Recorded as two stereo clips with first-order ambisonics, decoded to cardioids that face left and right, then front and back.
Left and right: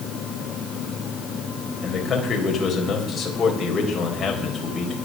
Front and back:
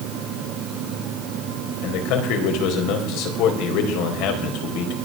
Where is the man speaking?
20° left, 4 m.